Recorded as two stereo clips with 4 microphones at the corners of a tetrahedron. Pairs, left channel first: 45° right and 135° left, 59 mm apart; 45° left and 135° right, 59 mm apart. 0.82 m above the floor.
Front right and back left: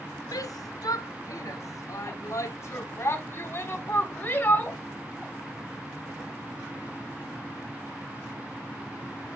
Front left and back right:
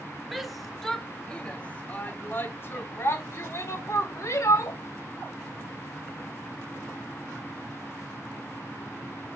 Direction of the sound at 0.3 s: 45° right.